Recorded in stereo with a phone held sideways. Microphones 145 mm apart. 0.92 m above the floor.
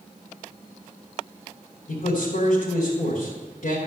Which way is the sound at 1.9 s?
70° left (ahead or behind).